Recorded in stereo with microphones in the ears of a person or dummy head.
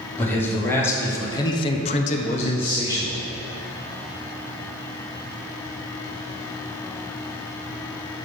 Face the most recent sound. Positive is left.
turn(degrees=15)  # may be behind; listen again after turning